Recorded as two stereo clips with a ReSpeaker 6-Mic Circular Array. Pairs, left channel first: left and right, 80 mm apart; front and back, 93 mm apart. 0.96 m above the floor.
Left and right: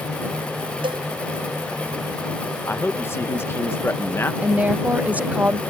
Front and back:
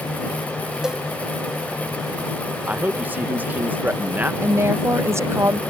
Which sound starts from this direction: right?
A cowbell, at 0.8 s.